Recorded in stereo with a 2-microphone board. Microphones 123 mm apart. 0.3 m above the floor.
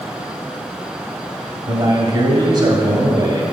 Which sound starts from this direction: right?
A man speaking, at 1.7 s.